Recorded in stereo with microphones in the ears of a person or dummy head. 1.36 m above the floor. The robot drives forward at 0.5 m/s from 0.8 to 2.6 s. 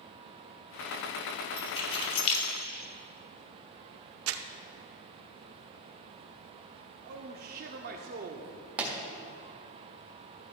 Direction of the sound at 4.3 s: 75° right (ahead or behind).